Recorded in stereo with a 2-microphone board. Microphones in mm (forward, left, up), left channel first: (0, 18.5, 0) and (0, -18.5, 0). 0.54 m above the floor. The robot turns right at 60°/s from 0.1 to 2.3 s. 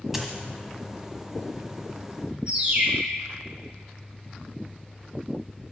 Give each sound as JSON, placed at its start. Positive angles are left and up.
{"t": 0.1, "sound": "a dropped coin", "side_deg": -10, "distance_m": 1.2}
{"t": 2.5, "sound": "a bird", "side_deg": -30, "distance_m": 2.0}